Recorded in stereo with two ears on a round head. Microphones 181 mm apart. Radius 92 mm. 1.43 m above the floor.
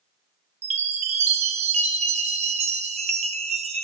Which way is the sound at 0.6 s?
35° right (ahead or behind).